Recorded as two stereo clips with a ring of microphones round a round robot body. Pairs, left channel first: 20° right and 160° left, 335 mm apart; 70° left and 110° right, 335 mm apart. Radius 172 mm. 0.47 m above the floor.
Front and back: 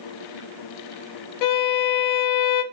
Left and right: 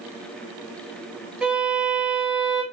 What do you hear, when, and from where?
1.4 s a violin: 25° right, 0.5 m